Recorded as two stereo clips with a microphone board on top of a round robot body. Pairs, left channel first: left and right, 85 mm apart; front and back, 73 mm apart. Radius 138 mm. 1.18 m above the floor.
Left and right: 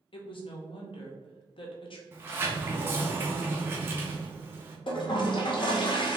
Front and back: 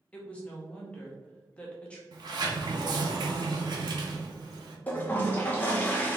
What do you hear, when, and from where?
0.1 s a woman speaking: 75° left, 0.8 m
2.1 s a sliding door: 155° right, 0.6 m
4.9 s a toilet flushing: 65° left, 0.8 m